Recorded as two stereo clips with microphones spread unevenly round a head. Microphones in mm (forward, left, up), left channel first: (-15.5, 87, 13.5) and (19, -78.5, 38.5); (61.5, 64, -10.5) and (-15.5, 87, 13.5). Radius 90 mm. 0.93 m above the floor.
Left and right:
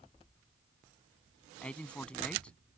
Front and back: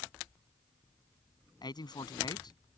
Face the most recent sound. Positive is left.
turn(degrees=15)